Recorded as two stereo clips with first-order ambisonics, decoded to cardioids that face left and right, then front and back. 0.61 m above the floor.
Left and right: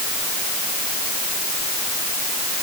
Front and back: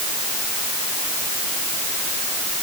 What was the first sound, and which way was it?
Only background noise.